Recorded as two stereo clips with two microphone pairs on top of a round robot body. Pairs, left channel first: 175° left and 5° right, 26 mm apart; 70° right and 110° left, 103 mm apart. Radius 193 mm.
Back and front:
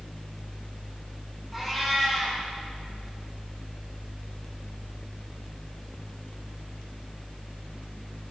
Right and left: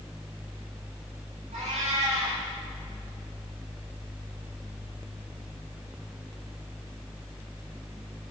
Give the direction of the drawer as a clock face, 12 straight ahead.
I don't hear a drawer.